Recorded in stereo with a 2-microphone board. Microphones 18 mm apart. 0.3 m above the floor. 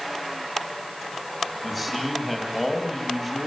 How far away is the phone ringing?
I don't hear a phone ringing.